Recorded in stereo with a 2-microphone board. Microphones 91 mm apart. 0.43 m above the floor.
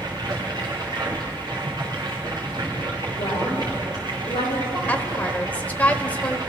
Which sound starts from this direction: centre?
A woman speaking, at 4.9 s.